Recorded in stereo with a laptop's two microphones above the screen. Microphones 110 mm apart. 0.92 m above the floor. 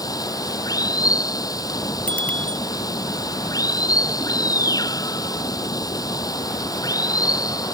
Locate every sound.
0.0 s running water: 35° left (ahead or behind)
2.1 s a bicycle bell: 10° left (ahead or behind)